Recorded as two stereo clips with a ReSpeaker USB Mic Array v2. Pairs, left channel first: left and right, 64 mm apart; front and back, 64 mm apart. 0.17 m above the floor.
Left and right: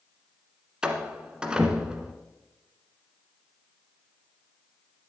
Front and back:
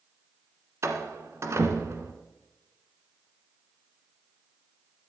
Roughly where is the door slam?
Behind.